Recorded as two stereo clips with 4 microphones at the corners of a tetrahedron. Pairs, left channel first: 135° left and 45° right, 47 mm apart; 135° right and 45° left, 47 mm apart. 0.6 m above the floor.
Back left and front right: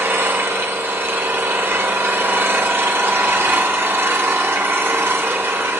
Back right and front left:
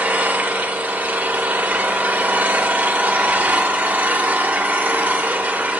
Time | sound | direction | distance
0.0 | an engine running | 10° right | 0.9 m